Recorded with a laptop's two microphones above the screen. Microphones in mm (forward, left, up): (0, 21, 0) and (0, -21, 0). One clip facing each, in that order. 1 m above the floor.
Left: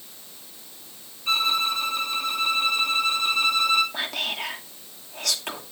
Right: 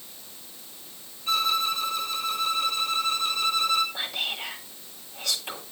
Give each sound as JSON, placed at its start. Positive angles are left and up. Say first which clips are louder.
{"t": 1.3, "sound": "a violin", "louder": "left 2 dB", "side_deg": 35, "distance_m": 2.5}
{"t": 3.9, "sound": "whispering", "louder": "left 2 dB", "side_deg": 70, "distance_m": 2.5}